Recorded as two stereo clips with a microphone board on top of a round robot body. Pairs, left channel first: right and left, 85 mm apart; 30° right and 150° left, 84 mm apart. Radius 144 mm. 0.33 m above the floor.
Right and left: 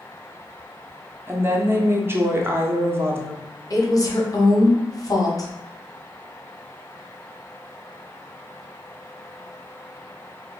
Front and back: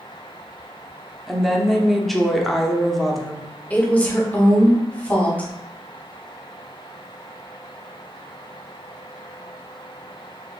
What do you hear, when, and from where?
1.3 s a woman speaking: 60° left, 0.9 m
3.7 s a woman speaking: 95° right, 1.3 m